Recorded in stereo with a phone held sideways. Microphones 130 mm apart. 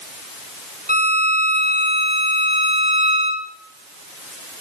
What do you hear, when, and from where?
0.9 s a violin: 60° right (ahead or behind), 1.6 m